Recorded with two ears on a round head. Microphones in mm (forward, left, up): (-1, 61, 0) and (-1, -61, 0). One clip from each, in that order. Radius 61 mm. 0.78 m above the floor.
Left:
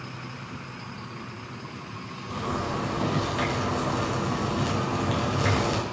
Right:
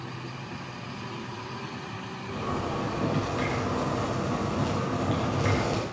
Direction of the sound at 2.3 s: 25° left (ahead or behind).